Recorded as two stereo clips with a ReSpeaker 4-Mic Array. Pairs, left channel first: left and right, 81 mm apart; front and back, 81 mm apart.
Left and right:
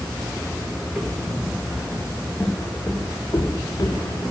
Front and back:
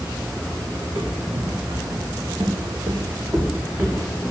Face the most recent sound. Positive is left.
turn(degrees=105)